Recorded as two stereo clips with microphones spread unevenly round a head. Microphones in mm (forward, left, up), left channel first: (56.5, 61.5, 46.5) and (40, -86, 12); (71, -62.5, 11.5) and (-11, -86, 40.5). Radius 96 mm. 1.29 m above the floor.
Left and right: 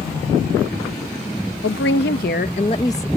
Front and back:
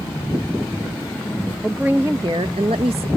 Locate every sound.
1.6 s a woman speaking: 105° left; by 3.1 s 160° left